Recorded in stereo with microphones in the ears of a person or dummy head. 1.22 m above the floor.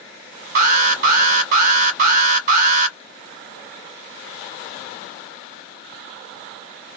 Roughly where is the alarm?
Right.